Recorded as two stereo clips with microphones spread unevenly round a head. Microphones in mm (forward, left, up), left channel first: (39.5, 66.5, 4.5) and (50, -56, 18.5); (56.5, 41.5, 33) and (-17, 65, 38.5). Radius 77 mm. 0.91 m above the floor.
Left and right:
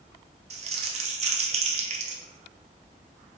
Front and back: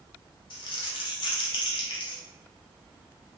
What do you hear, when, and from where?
0.5 s crumpling: 50° right, 0.7 m